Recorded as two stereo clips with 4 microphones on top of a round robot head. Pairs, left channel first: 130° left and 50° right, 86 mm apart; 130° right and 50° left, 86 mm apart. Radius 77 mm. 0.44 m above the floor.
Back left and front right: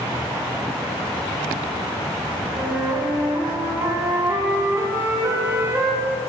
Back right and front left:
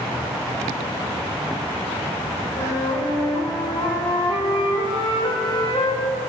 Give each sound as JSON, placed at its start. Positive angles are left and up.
{"t": 2.5, "sound": "a flute", "azimuth_deg": -115, "distance_m": 2.0}